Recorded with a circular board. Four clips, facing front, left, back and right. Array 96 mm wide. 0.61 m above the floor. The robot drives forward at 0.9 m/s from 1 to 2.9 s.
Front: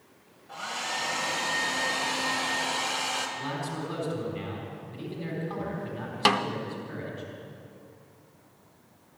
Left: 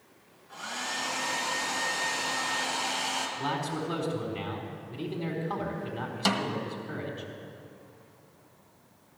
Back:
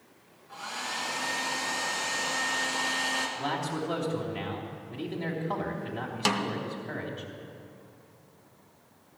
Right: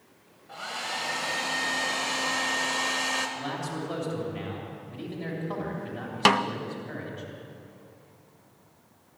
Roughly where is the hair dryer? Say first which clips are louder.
Right 2 dB, front 3 dB; ahead right.